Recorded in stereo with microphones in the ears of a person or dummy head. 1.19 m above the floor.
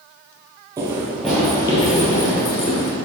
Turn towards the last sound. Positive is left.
turn(degrees=60)  # may be behind; listen again after turning